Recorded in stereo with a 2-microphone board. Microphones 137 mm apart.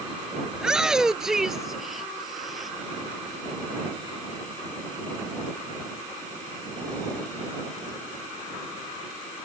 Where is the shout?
5° right (ahead or behind); by 2.7 s centre (ahead or behind).